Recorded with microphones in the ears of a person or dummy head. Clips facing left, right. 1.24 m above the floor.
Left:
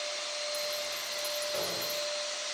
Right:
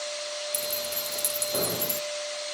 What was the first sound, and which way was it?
Keys jangling, 55° right (ahead or behind).